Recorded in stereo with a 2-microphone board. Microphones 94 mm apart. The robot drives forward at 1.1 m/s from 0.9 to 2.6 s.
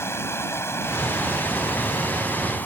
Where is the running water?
25° left (ahead or behind); by 2.7 s 20° left (ahead or behind).